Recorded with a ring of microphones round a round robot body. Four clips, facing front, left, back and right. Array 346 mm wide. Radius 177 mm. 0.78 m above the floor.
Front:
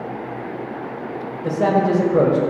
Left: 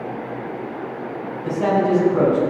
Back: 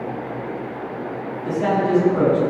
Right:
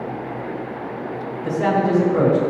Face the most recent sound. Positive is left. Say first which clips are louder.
# left 1 dB, front 2 dB
turn(degrees=-15)